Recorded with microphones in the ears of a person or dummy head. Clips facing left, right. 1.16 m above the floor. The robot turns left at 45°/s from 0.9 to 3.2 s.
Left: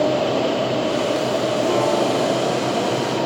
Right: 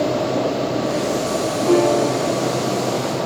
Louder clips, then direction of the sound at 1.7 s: Right 6 dB; 50° right (ahead or behind).